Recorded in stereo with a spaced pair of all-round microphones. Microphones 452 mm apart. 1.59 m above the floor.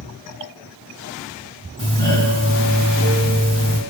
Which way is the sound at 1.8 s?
10° left (ahead or behind).